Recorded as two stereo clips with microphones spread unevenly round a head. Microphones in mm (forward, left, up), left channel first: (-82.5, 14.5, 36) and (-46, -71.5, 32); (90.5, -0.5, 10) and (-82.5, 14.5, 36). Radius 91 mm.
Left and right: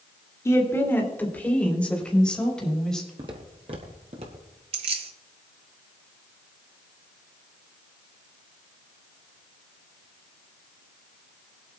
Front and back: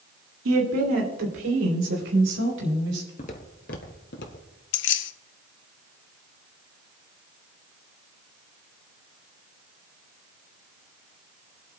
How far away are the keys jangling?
About 0.7 m.